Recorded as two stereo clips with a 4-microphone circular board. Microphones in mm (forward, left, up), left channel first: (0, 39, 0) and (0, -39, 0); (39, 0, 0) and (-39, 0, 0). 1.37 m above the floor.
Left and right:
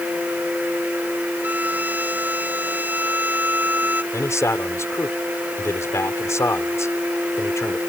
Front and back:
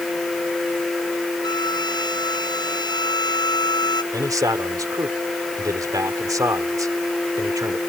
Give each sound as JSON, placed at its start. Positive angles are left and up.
{"t": 1.4, "sound": "a violin", "azimuth_deg": -25}
{"t": 4.1, "sound": "a man speaking", "azimuth_deg": 140}